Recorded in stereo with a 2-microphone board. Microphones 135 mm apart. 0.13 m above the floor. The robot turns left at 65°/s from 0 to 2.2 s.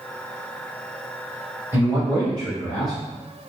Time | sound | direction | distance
1.7 | a man speaking | 25° right | 1.3 m